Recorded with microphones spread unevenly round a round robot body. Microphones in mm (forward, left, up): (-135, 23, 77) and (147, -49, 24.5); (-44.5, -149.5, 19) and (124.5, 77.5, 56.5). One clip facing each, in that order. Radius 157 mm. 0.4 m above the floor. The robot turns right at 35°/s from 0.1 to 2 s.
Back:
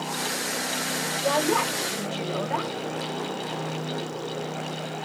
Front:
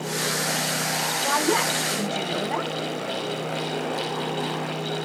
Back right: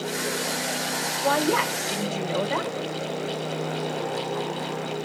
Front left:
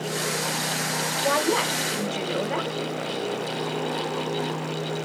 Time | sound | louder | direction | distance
1.2 | a woman speaking | even, back right 1 dB | 65° right | 2.5 m